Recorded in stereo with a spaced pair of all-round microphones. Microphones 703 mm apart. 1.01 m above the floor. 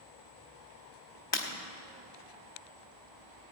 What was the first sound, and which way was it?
Breaking glass, 35° left (ahead or behind).